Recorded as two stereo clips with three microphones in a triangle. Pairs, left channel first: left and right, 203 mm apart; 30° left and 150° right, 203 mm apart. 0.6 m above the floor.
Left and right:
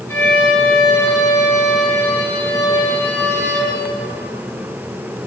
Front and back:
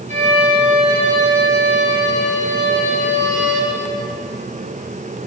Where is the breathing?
No breathing in this recording.